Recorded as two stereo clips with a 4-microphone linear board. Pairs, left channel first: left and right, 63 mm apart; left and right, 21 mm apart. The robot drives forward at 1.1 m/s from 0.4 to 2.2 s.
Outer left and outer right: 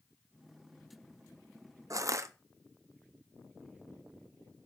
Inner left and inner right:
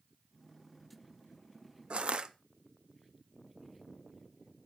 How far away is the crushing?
About 0.6 m.